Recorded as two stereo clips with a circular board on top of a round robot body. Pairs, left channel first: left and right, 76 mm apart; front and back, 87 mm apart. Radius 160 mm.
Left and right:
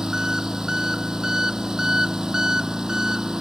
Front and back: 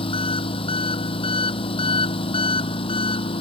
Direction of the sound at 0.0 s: 10° right.